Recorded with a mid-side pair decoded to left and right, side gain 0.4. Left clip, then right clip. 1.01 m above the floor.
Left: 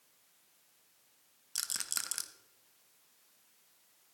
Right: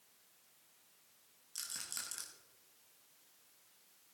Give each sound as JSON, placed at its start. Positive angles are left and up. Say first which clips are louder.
{"t": 1.6, "sound": "a rattle", "louder": "left 7 dB", "azimuth_deg": 65, "distance_m": 1.0}